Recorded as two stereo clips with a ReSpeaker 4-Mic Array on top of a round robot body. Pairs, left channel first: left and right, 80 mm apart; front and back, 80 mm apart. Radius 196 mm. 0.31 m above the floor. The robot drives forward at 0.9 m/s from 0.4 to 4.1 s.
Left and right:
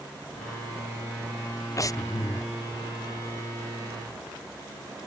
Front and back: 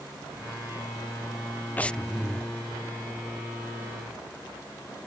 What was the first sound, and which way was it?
Breathing, 60° left.